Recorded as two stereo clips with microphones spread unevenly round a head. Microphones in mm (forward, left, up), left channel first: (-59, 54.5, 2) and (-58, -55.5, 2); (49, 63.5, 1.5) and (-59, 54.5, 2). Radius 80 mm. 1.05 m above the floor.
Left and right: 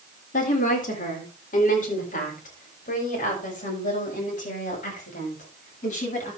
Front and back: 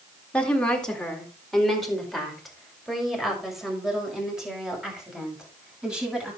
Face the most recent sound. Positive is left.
turn(degrees=100)